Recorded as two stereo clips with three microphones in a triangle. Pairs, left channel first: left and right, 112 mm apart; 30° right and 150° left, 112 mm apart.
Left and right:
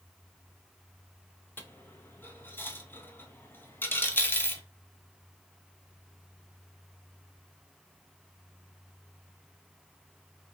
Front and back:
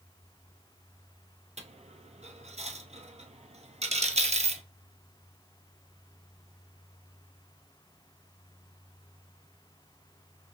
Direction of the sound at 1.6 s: 160° left.